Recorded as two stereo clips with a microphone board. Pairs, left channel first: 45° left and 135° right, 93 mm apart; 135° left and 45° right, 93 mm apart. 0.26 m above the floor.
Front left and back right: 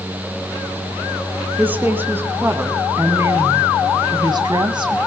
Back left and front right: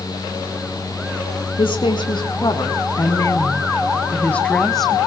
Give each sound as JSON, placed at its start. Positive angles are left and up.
{"t": 1.6, "sound": "a woman speaking", "azimuth_deg": 155, "distance_m": 3.0}